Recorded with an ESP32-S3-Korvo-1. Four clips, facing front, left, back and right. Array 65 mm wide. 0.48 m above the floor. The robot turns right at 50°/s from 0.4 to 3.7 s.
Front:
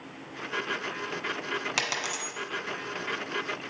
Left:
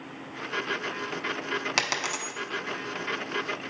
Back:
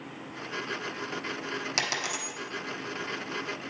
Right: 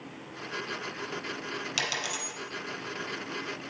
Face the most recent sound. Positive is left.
turn(degrees=170)